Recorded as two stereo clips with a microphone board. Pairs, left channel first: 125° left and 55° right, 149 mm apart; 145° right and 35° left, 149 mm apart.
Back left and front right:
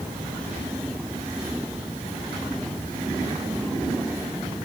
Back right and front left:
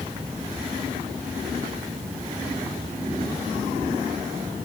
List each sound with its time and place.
Only background noise.